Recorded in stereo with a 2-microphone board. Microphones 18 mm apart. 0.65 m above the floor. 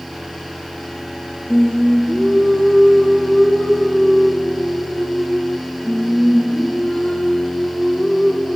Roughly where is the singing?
Left.